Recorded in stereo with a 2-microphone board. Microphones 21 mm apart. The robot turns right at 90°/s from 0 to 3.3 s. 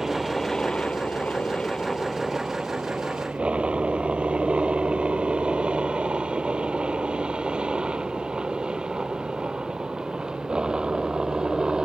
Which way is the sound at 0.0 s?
20° right (ahead or behind).